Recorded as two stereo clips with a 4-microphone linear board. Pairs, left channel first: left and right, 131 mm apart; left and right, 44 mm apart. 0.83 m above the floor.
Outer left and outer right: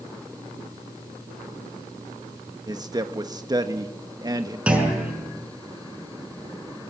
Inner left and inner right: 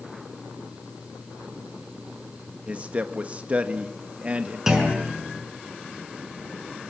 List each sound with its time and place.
2.7 s a man speaking: 30° right (ahead or behind), 1.2 m
4.7 s a clunk: 10° right (ahead or behind), 6 m